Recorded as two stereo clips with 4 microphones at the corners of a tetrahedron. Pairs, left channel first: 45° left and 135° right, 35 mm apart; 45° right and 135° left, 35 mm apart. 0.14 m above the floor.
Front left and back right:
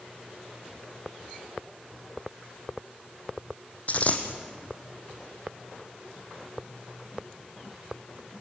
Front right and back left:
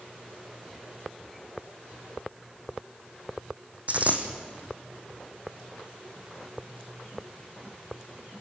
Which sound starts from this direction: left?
A dropped coin, at 3.9 s.